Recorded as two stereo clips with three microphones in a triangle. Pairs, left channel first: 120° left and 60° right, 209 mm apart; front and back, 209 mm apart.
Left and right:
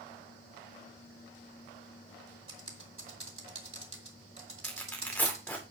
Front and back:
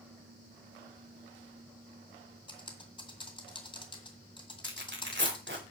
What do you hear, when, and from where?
2.5 s typing on a keyboard: 65° right, 1.9 m
4.6 s tearing paper: 160° right, 2.5 m